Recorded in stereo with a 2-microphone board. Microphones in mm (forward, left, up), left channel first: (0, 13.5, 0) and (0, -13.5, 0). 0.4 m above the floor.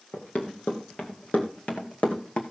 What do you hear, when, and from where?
0.1 s running footsteps: 80° left, 2.5 m; by 2.4 s 45° left (ahead or behind), 1.7 m